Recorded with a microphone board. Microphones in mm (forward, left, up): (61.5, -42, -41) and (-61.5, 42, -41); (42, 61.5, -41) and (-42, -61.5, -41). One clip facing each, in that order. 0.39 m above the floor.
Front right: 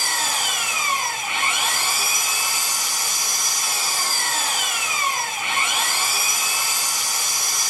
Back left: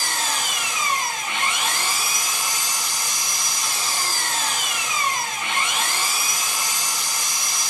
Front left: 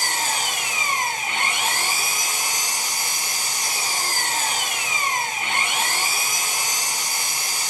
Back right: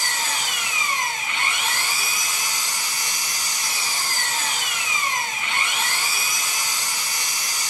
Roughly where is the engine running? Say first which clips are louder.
Even, front left 2 dB; ahead left.